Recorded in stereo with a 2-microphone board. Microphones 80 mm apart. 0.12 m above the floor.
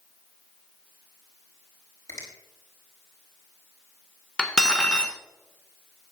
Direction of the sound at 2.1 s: 40° left (ahead or behind).